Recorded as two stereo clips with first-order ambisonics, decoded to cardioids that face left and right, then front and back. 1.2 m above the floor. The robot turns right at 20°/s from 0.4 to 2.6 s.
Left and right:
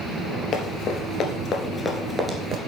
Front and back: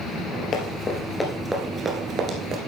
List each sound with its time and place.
0.5 s running footsteps: 40° left, 1.7 m; by 2.6 s 145° right, 1.5 m